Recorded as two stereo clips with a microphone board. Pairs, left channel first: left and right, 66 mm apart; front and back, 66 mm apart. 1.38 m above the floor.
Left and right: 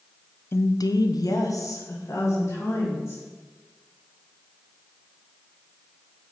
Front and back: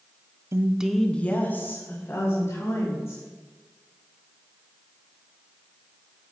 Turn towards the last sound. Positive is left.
turn(degrees=45)